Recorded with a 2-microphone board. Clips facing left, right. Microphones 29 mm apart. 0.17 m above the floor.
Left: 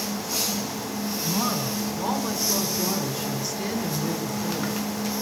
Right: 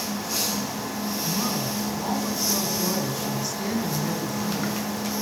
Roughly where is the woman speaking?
Left.